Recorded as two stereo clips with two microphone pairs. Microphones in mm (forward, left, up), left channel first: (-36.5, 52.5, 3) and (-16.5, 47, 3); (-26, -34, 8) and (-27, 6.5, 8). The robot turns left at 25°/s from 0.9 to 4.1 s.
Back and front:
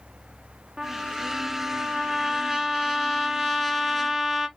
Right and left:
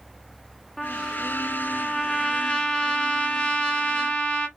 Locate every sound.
0.8 s a trumpet: 20° right, 1.2 m; by 4.5 s 100° right, 1.2 m